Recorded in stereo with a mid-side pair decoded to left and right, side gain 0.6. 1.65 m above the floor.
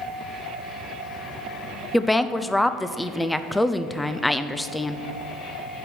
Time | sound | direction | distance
1.9 | a woman speaking | 5° left | 0.7 m